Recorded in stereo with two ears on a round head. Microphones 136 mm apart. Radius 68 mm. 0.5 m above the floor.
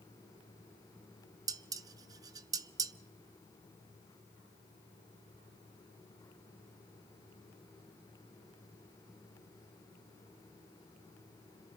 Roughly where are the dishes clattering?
Right.